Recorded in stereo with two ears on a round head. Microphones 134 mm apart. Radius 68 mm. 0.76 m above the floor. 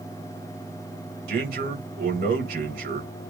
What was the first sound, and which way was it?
A man speaking, 70° right (ahead or behind).